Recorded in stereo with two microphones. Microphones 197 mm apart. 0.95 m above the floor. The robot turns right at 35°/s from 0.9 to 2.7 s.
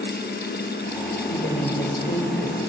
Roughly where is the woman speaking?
Left.